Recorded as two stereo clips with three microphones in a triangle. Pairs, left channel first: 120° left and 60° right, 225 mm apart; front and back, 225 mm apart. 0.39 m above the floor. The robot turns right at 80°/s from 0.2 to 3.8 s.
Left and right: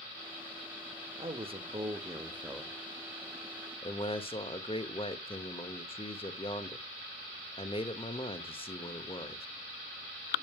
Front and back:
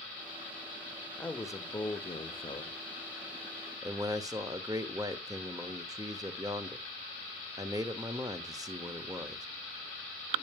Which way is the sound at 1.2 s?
80° right.